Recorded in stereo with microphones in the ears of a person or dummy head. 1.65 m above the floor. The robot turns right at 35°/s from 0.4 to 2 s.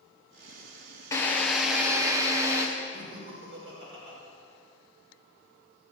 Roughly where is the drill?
Behind.